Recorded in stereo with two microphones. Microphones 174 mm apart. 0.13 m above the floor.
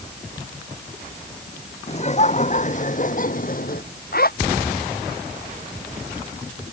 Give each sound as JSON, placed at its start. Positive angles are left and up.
{"t": 1.9, "sound": "laughter", "side_deg": 40}
{"t": 4.1, "sound": "a zipper", "side_deg": 60}